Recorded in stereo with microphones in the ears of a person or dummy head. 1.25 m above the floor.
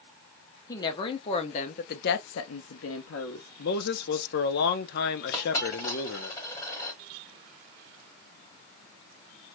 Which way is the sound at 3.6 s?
55° left (ahead or behind).